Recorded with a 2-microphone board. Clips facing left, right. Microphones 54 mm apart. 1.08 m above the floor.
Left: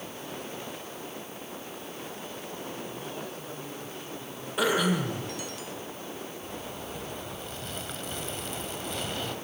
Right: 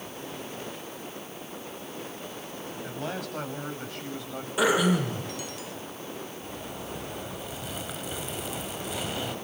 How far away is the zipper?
About 2.5 m.